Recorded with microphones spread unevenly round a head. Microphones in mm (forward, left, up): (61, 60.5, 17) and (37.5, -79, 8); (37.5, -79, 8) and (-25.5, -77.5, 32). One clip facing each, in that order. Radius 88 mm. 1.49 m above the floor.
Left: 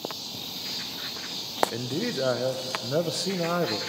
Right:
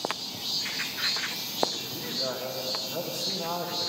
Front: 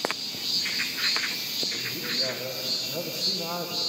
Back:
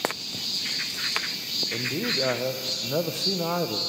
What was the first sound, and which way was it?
A man speaking, 120° left.